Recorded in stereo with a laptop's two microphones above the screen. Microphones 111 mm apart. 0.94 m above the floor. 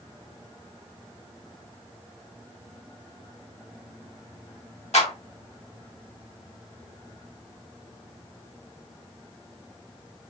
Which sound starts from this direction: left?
A clap, at 4.9 s.